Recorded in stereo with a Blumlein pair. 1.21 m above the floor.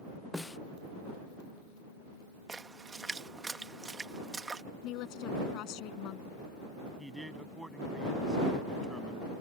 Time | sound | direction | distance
0.3 | a snare drum | 5° left | ?
2.5 | a splash | 10° right | ?
4.8 | a woman speaking | 40° left | ?
7.0 | a man speaking | 5° right | ?